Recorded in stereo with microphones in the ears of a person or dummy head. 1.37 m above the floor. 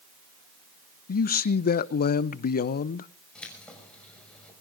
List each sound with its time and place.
1.1 s a man speaking: 45° left (ahead or behind), 0.6 m
3.4 s keys jangling: 5° left (ahead or behind), 6 m